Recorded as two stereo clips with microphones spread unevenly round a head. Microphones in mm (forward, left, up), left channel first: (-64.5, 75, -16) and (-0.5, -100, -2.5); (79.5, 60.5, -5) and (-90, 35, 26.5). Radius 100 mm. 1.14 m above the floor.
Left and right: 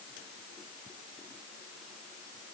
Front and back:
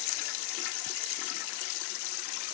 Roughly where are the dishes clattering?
I don't hear dishes clattering.